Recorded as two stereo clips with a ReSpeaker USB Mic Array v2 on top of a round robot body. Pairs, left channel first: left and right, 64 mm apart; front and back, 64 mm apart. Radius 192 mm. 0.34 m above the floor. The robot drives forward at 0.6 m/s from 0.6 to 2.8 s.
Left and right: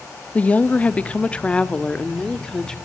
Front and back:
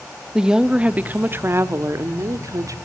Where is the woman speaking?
115° left, 1.1 m; by 2.8 s 165° left, 1.8 m.